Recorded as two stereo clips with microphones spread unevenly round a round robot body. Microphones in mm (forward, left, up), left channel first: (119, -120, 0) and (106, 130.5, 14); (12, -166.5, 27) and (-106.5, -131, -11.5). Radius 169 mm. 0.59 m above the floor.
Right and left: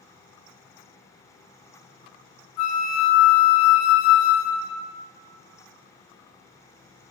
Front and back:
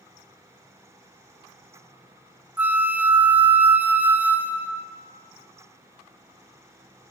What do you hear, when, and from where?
2.6 s a flute: 125° right, 0.9 m